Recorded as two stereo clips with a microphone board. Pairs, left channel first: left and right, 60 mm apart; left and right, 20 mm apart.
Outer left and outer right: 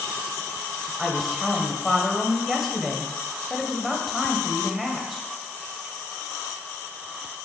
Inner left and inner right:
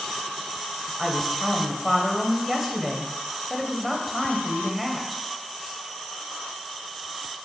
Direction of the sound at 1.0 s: Centre (ahead or behind).